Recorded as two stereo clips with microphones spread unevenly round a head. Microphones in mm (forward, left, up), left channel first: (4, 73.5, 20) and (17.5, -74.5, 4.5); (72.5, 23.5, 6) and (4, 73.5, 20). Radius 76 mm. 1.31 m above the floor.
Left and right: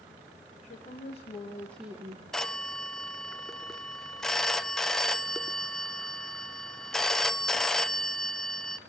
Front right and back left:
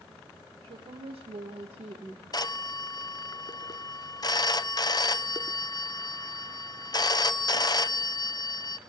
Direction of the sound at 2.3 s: 10° left.